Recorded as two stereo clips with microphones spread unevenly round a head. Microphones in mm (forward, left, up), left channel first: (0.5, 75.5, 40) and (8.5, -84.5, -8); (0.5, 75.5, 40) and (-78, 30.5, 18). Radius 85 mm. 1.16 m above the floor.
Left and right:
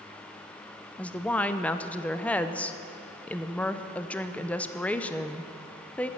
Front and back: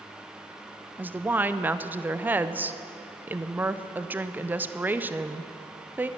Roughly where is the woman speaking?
Behind.